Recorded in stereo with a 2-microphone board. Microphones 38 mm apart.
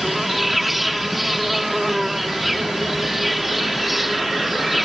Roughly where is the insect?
Centre.